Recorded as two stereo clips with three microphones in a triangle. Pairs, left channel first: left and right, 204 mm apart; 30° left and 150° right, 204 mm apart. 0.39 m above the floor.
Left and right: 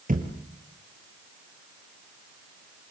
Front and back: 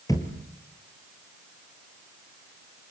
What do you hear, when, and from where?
0.1 s a thud: 45° right, 3 m